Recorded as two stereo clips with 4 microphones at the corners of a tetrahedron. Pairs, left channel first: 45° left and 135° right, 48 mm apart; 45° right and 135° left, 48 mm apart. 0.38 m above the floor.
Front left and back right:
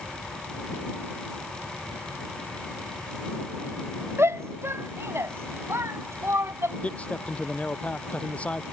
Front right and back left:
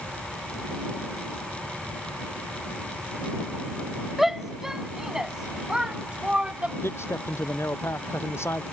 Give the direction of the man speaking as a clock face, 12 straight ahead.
1 o'clock.